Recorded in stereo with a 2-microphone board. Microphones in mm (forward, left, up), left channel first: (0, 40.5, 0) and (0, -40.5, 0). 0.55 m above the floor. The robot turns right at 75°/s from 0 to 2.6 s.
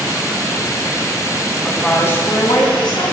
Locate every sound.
1.6 s a woman speaking: 5° right, 3.5 m; by 3.1 s 70° left, 3.5 m